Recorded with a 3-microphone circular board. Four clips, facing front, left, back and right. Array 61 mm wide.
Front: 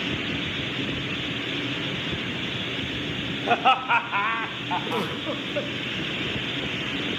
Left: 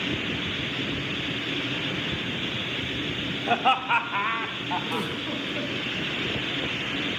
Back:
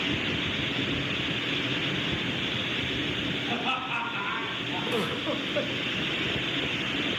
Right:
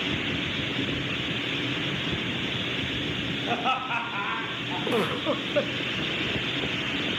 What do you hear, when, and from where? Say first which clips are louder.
3.5 s laughter: left 6 dB, front 14 dB; 10° left, 2 m; by 5.1 s 20° left, 4 m
4.9 s a giggle: right 4 dB, front 1 dB; 85° right, 1.1 m